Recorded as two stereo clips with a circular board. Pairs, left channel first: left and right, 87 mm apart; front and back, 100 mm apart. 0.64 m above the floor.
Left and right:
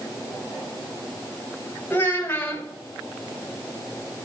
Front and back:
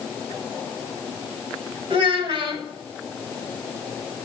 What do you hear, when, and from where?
1.9 s a child speaking: 155° left, 2 m